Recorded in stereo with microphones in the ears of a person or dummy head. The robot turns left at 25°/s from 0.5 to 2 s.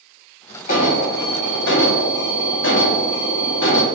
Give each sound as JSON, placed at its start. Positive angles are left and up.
{"t": 0.7, "sound": "an alarm", "azimuth_deg": 135, "distance_m": 1.6}